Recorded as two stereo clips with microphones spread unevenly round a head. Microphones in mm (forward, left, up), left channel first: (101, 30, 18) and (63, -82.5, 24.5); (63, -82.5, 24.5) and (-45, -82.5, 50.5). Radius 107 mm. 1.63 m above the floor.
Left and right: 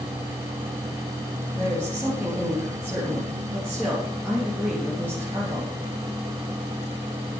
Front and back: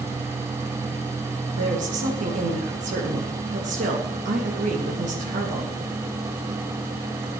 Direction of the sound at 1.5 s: 170° left.